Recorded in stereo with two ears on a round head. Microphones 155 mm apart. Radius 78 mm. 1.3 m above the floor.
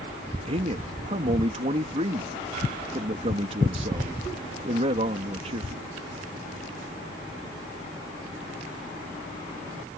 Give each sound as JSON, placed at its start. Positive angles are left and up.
{"t": 0.5, "sound": "a man speaking", "side_deg": -35}